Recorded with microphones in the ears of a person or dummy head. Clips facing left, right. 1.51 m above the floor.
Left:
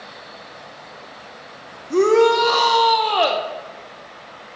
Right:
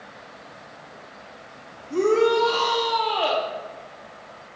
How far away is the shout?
About 1.2 m.